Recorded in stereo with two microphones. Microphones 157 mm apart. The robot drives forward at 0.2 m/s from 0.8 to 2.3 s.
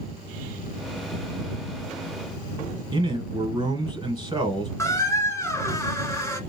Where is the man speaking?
30° right (ahead or behind), 1.1 m.